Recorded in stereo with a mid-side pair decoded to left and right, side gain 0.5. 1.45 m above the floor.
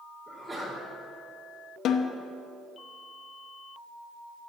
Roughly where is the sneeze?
Ahead.